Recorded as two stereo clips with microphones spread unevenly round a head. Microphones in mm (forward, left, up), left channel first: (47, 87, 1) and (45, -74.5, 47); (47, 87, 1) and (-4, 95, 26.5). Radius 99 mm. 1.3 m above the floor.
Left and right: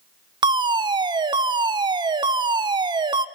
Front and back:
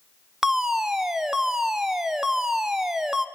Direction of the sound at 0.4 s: 30° right.